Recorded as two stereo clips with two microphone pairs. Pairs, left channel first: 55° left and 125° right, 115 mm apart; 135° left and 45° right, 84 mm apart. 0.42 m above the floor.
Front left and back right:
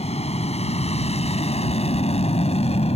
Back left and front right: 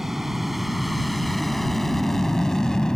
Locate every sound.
0.0 s an aircraft: 40° left; by 3.0 s 55° left